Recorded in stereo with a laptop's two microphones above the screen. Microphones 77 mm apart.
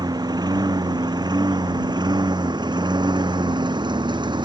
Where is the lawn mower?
60° right (ahead or behind); by 4.5 s 75° right (ahead or behind).